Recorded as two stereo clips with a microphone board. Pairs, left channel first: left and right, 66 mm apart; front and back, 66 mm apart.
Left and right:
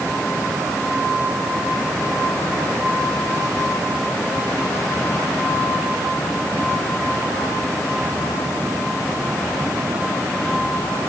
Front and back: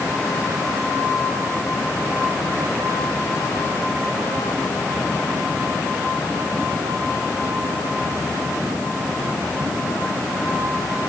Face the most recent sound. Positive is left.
No sound to turn to.